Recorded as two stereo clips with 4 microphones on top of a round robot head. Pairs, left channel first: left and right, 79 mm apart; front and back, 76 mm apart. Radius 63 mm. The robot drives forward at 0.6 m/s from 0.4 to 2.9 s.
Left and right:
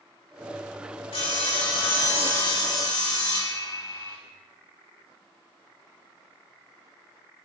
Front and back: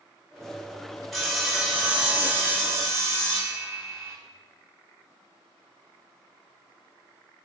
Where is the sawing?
90° left, 1.8 m; by 4.2 s 120° left, 2 m.